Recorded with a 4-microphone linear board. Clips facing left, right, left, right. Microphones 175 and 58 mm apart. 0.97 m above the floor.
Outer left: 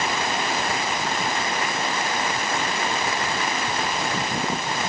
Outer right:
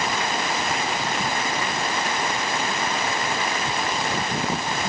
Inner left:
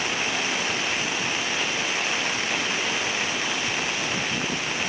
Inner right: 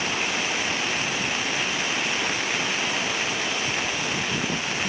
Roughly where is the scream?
I don't hear a scream.